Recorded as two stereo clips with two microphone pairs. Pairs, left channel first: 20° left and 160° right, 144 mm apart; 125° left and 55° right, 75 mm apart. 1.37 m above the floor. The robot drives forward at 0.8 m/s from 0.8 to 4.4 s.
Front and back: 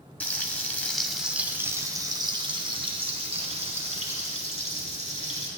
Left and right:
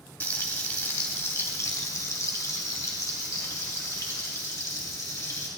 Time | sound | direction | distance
0.2 | frying | 85° left | 1.2 m